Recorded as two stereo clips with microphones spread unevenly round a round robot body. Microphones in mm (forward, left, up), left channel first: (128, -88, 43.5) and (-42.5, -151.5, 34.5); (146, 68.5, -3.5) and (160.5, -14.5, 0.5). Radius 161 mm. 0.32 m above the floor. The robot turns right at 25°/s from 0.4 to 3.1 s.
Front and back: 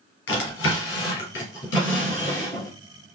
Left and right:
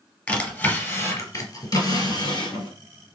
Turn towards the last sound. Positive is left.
turn(degrees=95)